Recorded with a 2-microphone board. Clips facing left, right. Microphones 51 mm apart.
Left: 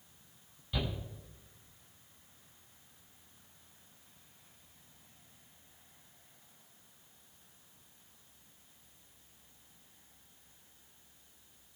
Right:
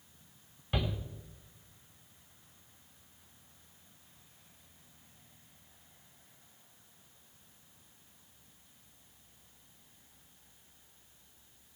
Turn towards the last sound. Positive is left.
turn(degrees=-50)  # may be behind; listen again after turning